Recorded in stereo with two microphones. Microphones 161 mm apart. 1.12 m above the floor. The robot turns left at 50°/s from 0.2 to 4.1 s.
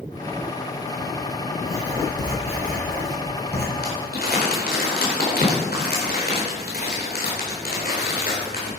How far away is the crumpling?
About 4 m.